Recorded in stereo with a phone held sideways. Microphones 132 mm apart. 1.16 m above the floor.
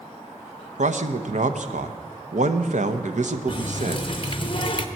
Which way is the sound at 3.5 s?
40° left (ahead or behind).